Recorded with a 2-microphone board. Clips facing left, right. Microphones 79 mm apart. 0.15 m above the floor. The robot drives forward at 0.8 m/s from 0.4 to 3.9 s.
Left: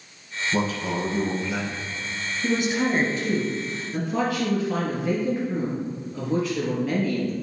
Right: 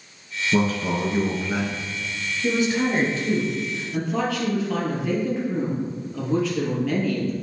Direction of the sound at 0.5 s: 45° right (ahead or behind).